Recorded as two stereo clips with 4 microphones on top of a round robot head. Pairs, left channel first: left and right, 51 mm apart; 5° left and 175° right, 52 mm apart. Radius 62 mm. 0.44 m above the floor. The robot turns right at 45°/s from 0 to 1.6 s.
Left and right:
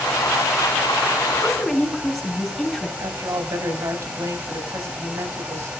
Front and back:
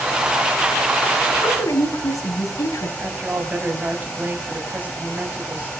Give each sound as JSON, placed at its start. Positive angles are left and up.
{"t": 1.4, "sound": "a woman speaking", "azimuth_deg": -5, "distance_m": 5.0}
{"t": 3.0, "sound": "a woman speaking", "azimuth_deg": -110, "distance_m": 4.0}